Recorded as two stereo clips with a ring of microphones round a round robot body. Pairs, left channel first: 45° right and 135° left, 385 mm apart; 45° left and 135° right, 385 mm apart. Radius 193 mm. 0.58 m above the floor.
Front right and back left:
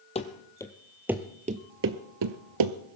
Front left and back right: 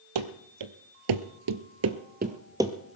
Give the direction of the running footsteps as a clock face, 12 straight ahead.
4 o'clock.